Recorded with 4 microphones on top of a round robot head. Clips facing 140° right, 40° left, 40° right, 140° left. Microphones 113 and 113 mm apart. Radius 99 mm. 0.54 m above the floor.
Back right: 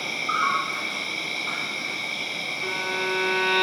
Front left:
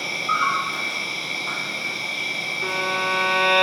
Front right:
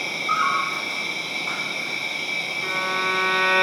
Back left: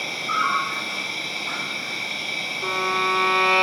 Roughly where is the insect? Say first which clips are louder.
Front left 2 dB, front right 1 dB; ahead.